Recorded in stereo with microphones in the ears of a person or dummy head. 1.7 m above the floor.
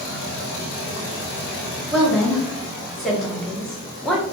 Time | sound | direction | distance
1.9 | a woman speaking | 5° left (ahead or behind) | 0.8 m